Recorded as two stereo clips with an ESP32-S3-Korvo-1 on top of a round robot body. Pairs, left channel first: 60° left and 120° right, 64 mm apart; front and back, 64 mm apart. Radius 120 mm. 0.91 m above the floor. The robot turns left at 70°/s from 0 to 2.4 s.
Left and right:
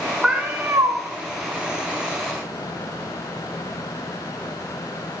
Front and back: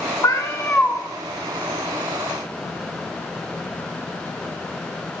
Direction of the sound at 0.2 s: 35° right.